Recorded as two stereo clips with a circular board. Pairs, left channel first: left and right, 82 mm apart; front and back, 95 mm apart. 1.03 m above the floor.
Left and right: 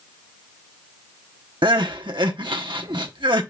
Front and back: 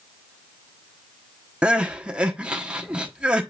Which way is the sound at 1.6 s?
100° right.